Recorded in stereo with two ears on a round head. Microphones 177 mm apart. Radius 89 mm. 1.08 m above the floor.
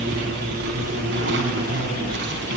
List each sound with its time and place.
0.0 s an insect: 55° right (ahead or behind), 5.5 m